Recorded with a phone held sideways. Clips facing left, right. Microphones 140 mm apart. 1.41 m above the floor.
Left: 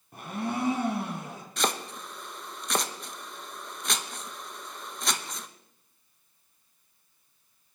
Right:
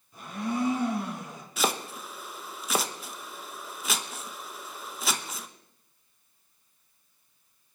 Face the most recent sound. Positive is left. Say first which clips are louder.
# right 1 dB
turn(degrees=-5)  # may be behind; listen again after turning